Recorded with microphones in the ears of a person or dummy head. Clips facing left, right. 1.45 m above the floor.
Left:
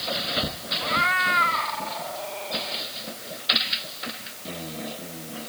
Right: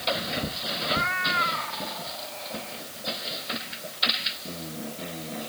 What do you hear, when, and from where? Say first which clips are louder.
0.8 s a cat meowing: left 2 dB; 60° left (ahead or behind)